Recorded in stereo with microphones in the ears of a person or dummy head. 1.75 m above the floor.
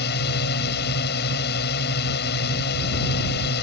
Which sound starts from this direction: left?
A drone, at 0.0 s.